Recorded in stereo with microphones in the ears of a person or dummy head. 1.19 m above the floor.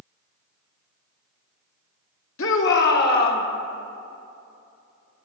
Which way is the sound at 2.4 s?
70° left (ahead or behind).